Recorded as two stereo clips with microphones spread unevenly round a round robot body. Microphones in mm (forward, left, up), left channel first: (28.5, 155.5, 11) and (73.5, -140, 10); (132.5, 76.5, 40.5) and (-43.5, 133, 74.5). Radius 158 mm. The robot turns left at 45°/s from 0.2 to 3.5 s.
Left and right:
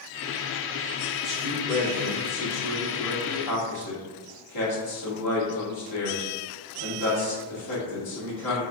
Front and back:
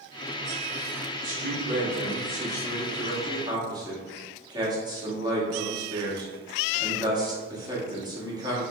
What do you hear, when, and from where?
1.2 s a man speaking: 170° right, 1.4 m; by 8.6 s 90° left, 1.4 m